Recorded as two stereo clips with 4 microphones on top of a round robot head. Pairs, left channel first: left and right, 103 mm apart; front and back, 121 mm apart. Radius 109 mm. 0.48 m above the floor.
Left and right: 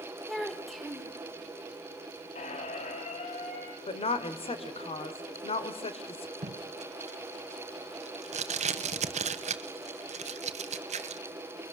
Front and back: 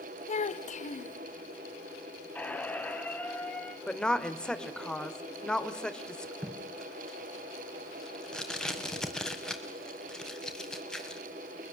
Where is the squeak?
75° left, 3 m.